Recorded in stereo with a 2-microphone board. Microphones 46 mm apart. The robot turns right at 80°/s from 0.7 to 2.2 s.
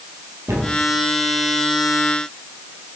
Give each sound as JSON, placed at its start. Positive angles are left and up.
{"t": 0.5, "sound": "a cupboard door", "side_deg": -65, "distance_m": 1.2}